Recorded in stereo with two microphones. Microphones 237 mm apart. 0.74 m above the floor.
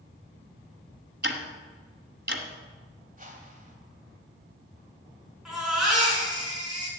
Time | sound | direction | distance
1.2 | ticking | 45° right (ahead or behind) | 1.3 m
3.2 | a whoosh | 35° right (ahead or behind) | 2.0 m
5.5 | a baby crying | 5° right (ahead or behind) | 5.5 m